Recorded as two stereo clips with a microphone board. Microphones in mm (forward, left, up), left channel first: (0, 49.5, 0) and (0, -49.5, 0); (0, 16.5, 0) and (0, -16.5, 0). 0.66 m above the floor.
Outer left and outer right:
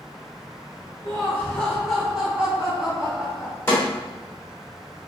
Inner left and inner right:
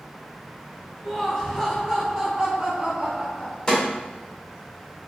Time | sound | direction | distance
1.0 | laughter | 25° left (ahead or behind) | 1.3 m
3.7 | a snare drum | 20° left (ahead or behind) | 2.0 m